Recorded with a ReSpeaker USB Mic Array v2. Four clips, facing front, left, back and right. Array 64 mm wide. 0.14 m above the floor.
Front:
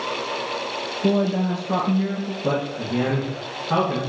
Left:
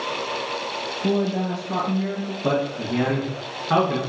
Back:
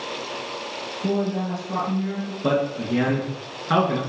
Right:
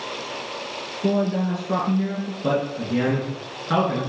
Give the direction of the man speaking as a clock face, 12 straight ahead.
6 o'clock.